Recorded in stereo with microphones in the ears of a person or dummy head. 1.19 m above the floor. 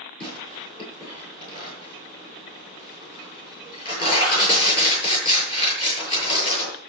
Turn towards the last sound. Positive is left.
turn(degrees=30)  # may be behind; listen again after turning